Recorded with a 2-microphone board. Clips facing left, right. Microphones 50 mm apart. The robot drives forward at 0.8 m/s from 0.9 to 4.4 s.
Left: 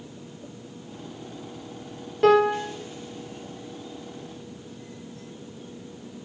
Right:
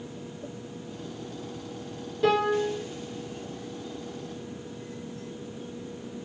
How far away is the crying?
I don't hear crying.